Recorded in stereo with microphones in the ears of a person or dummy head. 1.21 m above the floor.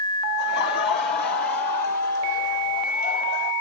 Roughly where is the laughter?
Left.